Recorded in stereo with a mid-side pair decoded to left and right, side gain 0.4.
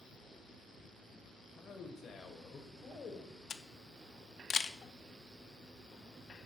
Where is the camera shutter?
55° left, 0.6 m.